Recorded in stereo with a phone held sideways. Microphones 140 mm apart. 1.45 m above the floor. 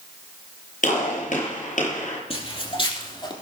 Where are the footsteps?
45° left (ahead or behind), 2.5 m; by 3.3 s 35° left (ahead or behind), 3.5 m.